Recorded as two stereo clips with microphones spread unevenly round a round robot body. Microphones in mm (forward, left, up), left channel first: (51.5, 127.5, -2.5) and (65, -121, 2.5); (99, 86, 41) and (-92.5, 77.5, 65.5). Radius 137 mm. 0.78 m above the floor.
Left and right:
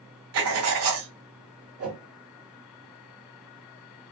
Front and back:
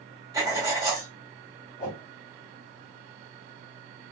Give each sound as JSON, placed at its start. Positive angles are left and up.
{"t": 0.3, "sound": "writing", "azimuth_deg": -105, "distance_m": 0.6}
{"t": 1.8, "sound": "a whoosh", "azimuth_deg": -60, "distance_m": 1.5}